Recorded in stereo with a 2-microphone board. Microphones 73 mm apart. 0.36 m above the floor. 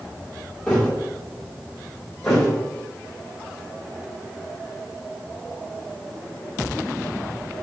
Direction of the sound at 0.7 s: 15° left (ahead or behind).